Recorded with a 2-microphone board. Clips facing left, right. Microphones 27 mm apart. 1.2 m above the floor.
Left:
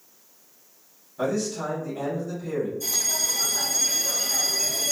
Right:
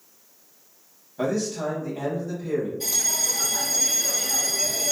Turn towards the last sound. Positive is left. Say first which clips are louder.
# right 1 dB
turn(degrees=-60)  # may be behind; listen again after turning